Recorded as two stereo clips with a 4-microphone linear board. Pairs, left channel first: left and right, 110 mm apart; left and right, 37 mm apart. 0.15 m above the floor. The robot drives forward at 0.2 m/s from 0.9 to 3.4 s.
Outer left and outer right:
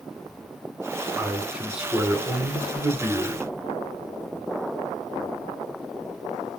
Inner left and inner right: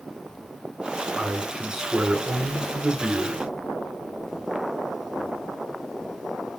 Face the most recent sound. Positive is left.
turn(degrees=-5)  # may be behind; listen again after turning